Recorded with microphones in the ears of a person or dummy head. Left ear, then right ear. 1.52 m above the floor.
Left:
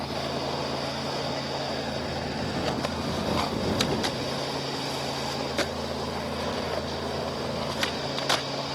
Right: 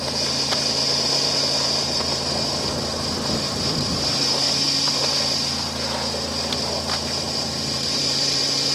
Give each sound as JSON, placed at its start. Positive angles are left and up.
{"t": 0.0, "sound": "a fan", "side_deg": -80}